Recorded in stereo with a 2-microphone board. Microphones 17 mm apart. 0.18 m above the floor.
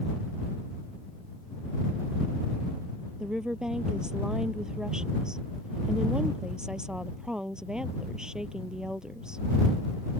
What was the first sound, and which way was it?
A woman speaking, 50° right (ahead or behind).